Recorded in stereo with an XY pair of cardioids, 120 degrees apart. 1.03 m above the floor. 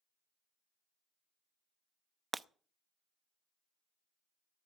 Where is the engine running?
No engine running in this recording.